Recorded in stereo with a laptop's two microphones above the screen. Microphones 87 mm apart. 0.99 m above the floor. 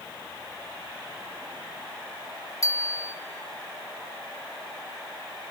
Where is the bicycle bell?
40° left (ahead or behind), 2.5 m.